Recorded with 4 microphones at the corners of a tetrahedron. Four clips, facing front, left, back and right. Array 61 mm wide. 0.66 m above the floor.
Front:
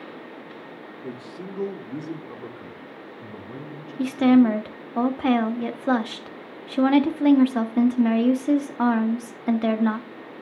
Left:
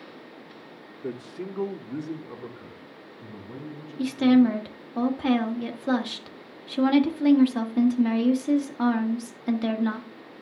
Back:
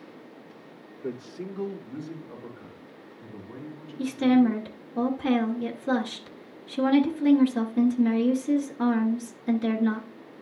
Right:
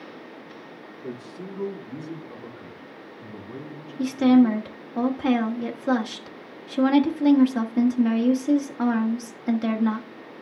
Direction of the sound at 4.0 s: 10° right.